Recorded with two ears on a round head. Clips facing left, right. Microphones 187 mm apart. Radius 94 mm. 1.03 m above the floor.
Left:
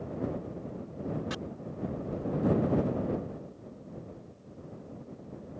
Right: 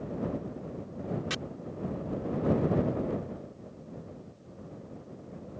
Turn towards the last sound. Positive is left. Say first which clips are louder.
# even
turn(degrees=-35)  # may be behind; listen again after turning